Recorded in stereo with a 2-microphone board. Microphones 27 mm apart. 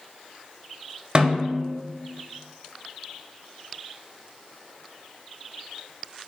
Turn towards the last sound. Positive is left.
turn(degrees=-30)  # may be behind; listen again after turning